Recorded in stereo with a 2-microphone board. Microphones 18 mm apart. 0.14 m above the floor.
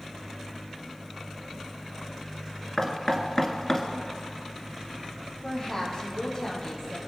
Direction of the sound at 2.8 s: 25° left (ahead or behind).